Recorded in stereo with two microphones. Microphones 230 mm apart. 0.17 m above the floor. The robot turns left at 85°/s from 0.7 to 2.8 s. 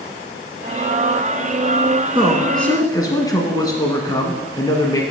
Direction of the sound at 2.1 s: 145° right.